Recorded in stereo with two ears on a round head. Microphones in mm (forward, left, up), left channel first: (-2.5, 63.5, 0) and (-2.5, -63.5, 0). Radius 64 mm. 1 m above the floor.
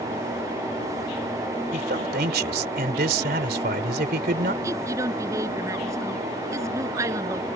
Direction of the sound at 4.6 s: 25° right (ahead or behind).